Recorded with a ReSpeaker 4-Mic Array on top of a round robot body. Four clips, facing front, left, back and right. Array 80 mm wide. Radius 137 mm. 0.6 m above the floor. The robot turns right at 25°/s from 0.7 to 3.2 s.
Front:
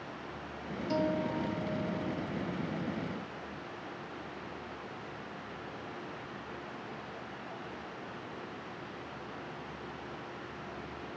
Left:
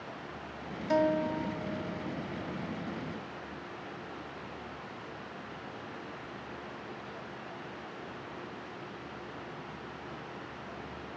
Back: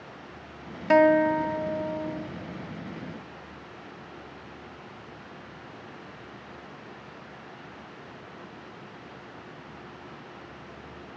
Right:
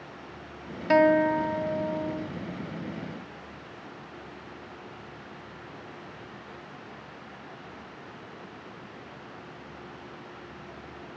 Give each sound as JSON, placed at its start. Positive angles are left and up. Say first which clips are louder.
{"t": 0.9, "sound": "a guitar", "louder": "right 8 dB, back 14 dB", "azimuth_deg": -155}